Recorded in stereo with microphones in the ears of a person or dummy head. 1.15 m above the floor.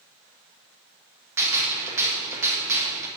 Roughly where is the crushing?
I don't hear crushing.